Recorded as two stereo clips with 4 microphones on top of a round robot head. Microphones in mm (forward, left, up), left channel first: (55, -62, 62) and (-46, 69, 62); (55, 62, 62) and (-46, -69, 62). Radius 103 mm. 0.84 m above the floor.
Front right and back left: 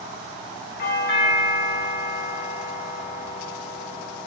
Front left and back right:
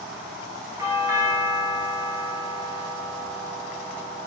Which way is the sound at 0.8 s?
55° right.